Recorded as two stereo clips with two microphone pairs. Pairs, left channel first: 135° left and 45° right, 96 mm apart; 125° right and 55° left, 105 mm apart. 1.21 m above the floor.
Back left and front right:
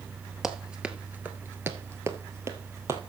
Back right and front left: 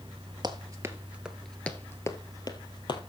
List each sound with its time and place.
0.4 s running footsteps: 40° left, 1.5 m; by 3.0 s 100° right, 2 m